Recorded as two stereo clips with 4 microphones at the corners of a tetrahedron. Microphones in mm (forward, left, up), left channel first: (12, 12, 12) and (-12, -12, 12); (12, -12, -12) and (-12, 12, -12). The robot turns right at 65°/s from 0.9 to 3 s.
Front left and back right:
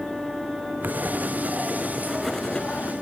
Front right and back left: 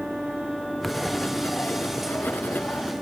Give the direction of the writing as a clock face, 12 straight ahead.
4 o'clock.